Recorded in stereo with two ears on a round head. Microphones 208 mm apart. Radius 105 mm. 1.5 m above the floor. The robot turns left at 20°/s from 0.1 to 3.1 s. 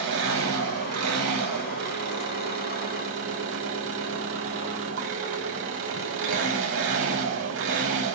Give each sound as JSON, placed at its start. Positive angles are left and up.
{"t": 0.0, "sound": "an engine running", "azimuth_deg": -55, "distance_m": 5.5}